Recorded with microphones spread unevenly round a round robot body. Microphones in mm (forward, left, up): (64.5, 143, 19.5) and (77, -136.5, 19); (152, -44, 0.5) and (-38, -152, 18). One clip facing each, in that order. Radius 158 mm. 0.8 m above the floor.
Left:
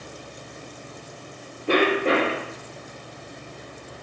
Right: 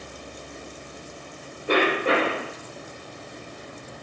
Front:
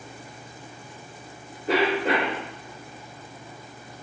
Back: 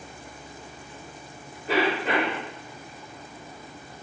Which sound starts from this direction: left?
A cough, at 1.7 s.